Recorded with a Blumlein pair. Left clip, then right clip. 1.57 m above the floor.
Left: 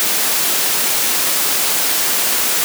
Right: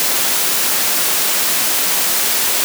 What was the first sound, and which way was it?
Only background noise.